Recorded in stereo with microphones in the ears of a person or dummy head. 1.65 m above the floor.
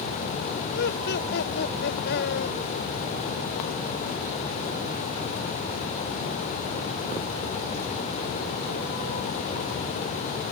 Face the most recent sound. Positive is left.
turn(degrees=55)  # may be behind; listen again after turning